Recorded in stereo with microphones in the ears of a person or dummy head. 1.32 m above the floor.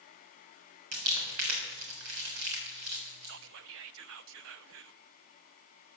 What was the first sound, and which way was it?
Crumpling, 85° right.